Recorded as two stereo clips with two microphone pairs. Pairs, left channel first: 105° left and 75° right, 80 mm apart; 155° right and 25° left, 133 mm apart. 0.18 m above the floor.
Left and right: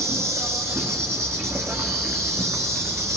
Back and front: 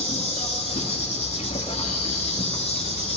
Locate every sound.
0.0 s an insect: 125° right, 1.7 m